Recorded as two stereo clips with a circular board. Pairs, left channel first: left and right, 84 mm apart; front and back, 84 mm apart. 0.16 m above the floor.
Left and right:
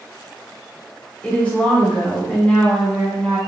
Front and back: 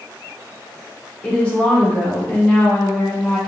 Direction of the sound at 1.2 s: 50° left.